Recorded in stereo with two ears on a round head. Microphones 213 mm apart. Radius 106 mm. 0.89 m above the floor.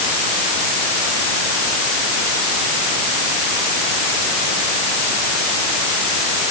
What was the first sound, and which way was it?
Only background noise.